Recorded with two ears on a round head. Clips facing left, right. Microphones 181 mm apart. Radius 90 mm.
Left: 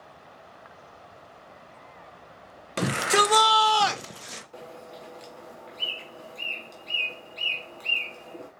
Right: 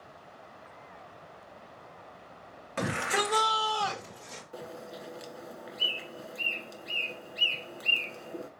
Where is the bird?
20° right (ahead or behind), 1.3 m.